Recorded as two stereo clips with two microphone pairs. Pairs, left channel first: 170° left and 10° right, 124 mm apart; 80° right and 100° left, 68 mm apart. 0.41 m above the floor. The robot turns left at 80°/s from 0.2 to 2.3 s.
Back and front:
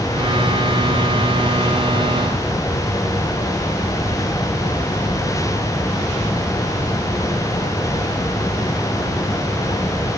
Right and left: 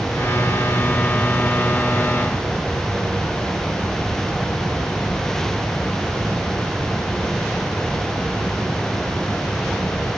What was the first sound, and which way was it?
Only background noise.